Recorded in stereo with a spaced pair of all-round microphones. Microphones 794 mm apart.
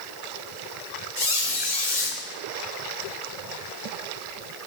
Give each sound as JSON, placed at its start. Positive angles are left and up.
{"t": 1.2, "sound": "a squeak", "side_deg": 65, "distance_m": 2.5}